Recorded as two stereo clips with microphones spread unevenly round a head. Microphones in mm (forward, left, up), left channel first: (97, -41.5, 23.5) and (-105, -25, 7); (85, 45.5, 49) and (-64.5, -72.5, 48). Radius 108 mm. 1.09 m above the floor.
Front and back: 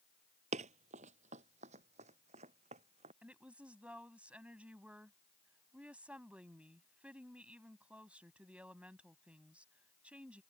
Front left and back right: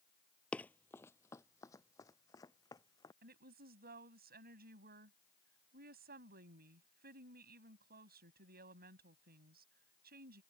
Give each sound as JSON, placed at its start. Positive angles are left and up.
{"t": 0.5, "sound": "running footsteps", "azimuth_deg": 120}
{"t": 3.2, "sound": "a woman speaking", "azimuth_deg": -100}